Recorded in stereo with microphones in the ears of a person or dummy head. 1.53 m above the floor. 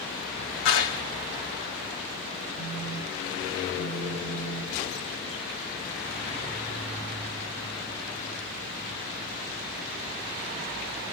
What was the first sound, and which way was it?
A clap, 70° left (ahead or behind).